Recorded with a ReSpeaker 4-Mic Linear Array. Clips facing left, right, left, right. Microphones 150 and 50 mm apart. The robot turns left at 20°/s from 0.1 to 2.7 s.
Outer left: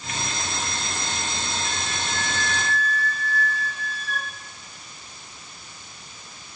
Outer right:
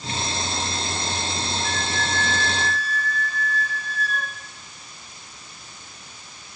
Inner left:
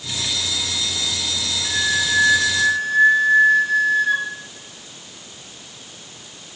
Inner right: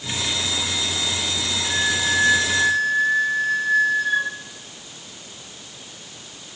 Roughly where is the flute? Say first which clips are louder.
Outer right 4 dB, inner left 1 dB; centre.